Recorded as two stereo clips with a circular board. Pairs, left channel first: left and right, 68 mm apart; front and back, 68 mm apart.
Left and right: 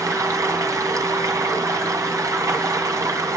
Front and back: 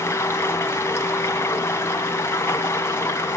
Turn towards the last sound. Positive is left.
turn(degrees=-50)